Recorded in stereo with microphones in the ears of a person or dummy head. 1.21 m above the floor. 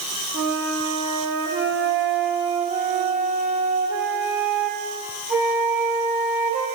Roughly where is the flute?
Centre.